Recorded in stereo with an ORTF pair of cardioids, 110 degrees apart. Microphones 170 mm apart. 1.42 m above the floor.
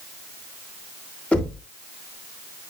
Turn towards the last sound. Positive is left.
turn(degrees=10)